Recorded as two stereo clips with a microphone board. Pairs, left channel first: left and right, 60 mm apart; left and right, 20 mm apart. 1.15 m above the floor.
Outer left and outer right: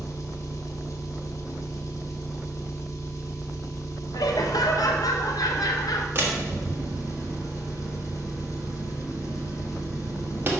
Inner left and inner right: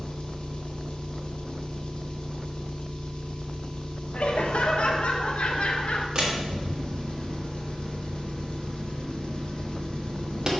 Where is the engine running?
55° left (ahead or behind), 0.9 m.